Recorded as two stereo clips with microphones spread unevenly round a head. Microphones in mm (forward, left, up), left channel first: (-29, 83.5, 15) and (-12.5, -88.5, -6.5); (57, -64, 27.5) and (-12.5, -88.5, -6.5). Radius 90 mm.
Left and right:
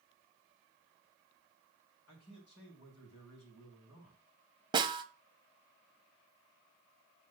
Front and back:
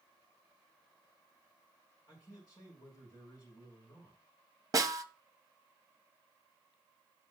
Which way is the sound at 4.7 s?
145° right.